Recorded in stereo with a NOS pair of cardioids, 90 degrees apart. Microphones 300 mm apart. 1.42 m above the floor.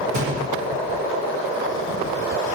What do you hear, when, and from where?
0.1 s a gunshot: 65° right, 1.3 m